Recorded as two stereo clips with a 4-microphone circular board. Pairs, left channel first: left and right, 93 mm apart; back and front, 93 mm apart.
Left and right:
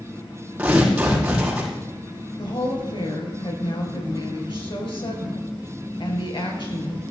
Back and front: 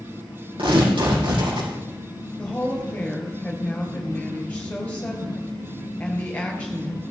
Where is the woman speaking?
105° left, 3.5 m.